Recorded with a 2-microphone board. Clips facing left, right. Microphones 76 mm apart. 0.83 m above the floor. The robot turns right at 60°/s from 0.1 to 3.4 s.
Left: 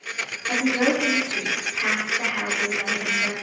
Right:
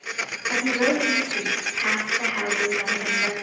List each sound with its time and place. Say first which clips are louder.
0.5 s a woman speaking: left 1 dB; 55° left, 2.5 m; by 3.3 s 135° right, 2.5 m